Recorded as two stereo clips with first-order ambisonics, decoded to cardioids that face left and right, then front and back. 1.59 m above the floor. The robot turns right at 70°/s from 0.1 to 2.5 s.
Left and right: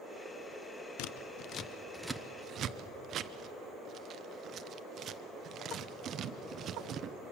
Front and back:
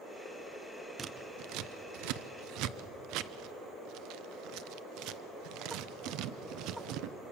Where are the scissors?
110° left, 0.7 m; by 7.1 s 145° right, 0.7 m.